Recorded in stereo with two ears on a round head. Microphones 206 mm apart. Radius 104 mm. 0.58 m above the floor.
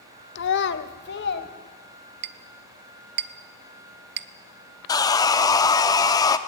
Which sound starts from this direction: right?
A clink, at 2.2 s.